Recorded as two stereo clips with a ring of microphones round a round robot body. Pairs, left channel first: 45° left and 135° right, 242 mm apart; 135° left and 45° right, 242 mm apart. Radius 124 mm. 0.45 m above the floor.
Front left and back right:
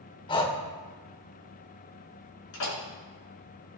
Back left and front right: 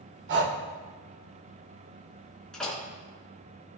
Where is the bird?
I don't hear a bird.